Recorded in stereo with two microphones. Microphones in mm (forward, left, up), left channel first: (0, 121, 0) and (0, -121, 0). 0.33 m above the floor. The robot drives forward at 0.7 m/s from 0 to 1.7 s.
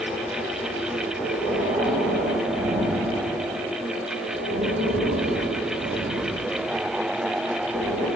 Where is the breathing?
50° right (ahead or behind), 2 m.